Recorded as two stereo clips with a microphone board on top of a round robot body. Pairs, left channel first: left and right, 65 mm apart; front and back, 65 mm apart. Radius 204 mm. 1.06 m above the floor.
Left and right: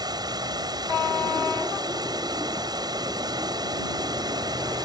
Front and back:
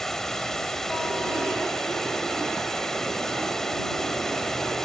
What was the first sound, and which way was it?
Running water, 85° right.